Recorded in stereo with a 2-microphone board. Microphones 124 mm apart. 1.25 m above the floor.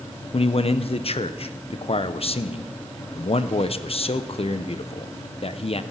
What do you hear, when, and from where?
0.3 s a man speaking: 50° left (ahead or behind), 0.8 m